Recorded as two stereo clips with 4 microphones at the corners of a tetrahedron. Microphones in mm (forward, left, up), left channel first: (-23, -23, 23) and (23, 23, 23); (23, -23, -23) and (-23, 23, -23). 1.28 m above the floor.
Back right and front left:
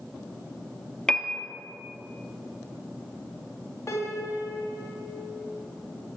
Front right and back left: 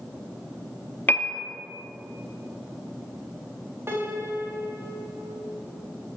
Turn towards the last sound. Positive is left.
turn(degrees=-175)